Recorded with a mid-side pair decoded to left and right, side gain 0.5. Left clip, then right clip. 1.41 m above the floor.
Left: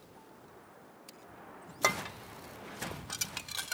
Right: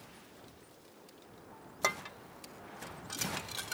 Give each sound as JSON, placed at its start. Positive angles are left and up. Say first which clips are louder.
{"t": 1.8, "sound": "dishes clattering", "louder": "left 3 dB", "azimuth_deg": 25}